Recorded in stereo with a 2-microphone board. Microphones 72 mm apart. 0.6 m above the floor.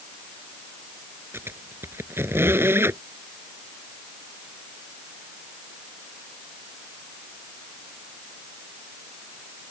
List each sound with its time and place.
1.3 s a squeak: 35° right (ahead or behind)